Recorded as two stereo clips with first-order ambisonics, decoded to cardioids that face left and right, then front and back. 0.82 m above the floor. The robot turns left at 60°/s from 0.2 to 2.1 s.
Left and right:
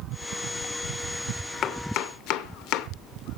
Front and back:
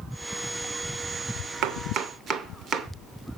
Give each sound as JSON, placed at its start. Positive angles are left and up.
{"t": 1.6, "sound": "chopping", "azimuth_deg": 145, "distance_m": 0.9}